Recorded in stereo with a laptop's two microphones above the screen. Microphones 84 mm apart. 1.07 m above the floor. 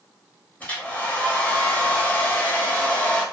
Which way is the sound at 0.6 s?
15° left (ahead or behind).